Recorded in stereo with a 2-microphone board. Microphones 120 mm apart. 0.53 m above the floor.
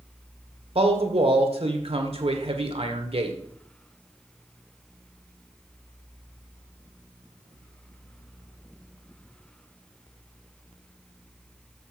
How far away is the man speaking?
About 1.5 m.